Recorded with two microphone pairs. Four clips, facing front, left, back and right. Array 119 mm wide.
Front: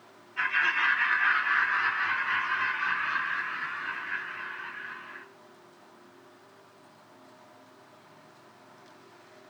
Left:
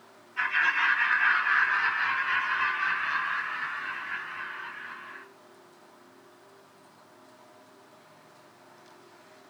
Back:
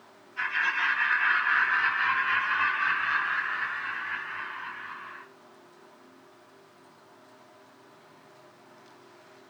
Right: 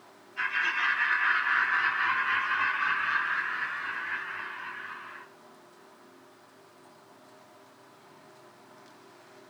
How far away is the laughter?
About 1.3 m.